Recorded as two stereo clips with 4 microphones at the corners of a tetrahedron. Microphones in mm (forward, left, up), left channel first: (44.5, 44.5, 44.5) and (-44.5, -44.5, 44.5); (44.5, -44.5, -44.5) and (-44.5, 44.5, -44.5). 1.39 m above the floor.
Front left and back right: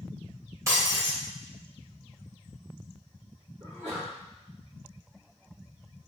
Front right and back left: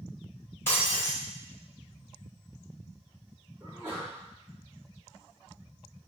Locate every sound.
0.7 s breaking glass: 100° right, 1.1 m
3.6 s a sneeze: 155° right, 1.7 m